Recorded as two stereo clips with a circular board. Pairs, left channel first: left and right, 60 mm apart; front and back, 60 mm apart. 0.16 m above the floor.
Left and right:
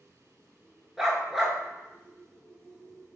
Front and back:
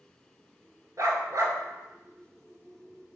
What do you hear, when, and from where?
1.0 s a dog barking: 175° right, 0.5 m